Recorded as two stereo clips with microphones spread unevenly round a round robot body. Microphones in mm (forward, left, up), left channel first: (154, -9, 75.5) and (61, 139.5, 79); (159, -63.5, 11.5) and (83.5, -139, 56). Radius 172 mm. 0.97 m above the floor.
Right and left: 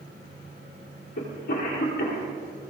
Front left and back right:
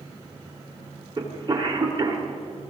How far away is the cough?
About 3.5 m.